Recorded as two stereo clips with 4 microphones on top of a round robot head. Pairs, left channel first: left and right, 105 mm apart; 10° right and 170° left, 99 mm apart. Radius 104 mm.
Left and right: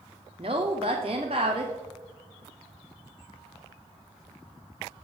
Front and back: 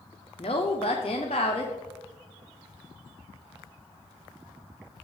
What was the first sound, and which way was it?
A woman speaking, 50° right.